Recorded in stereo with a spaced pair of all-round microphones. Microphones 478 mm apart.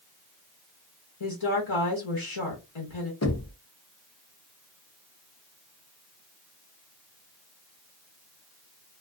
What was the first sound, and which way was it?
A woman speaking, 75° left (ahead or behind).